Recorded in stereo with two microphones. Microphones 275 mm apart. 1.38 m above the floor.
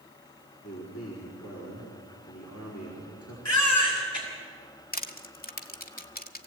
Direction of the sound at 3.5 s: 80° left.